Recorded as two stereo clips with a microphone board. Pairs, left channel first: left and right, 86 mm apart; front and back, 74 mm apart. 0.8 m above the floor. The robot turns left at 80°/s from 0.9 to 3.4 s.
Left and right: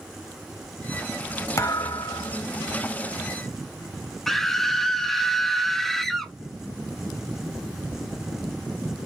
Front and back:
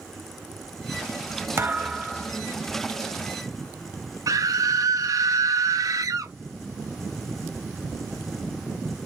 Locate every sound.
1.6 s a thud: 135° left, 0.6 m; by 2.4 s 65° left, 0.6 m
4.3 s a scream: 175° left, 0.7 m